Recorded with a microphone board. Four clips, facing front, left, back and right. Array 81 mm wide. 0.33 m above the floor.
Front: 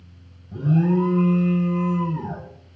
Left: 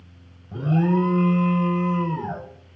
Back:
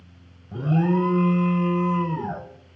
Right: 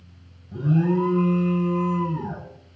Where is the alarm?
140° left, 0.9 m.